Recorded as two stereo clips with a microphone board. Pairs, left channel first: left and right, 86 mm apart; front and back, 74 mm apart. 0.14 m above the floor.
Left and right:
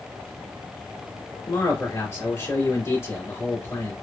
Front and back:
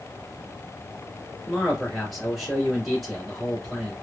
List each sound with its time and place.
1.5 s a man speaking: 90° left, 1.7 m